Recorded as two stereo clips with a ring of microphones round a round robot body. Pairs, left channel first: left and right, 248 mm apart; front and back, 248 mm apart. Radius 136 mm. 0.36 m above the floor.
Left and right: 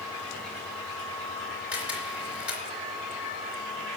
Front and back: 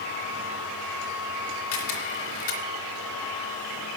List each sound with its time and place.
1.7 s a camera shutter: 5° right, 3 m